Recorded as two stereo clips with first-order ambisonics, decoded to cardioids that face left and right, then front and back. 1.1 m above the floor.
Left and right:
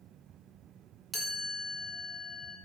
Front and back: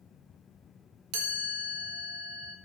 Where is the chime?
170° left, 1.7 m.